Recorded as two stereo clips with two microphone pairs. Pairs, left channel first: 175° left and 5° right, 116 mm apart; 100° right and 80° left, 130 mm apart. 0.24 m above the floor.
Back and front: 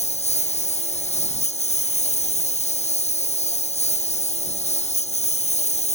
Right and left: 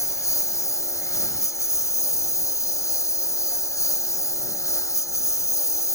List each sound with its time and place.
0.0 s a lawn mower: 165° right